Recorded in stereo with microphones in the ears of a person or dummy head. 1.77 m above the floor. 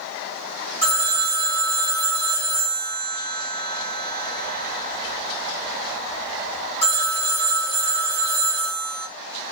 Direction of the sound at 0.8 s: 30° left (ahead or behind).